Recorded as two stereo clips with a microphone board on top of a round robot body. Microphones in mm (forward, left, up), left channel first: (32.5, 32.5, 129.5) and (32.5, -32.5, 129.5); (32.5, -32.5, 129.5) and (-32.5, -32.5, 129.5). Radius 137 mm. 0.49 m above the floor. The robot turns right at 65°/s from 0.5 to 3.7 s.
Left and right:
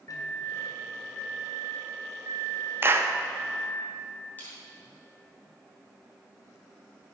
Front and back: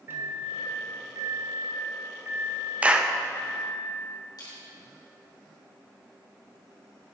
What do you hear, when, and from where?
0.1 s a microwave: 125° left, 1.4 m; by 3.8 s 30° right, 1.4 m
2.8 s a clap: 120° right, 0.7 m; by 3.1 s 100° right, 0.7 m
4.4 s crushing: 25° left, 3 m